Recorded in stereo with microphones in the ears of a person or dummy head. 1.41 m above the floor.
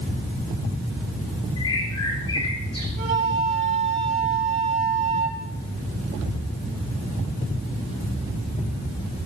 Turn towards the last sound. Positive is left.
turn(degrees=-35)  # may be behind; listen again after turning